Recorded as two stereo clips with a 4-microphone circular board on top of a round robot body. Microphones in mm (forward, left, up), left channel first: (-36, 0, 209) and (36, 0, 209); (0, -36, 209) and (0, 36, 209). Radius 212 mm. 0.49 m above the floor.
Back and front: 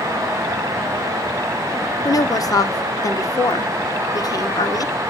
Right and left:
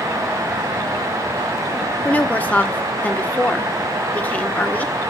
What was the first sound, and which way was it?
A woman speaking, 155° right.